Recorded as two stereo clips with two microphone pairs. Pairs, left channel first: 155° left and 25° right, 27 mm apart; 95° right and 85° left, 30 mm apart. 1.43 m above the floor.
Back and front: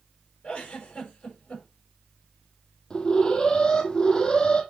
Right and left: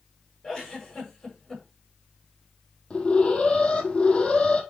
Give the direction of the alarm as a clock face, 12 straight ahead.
5 o'clock.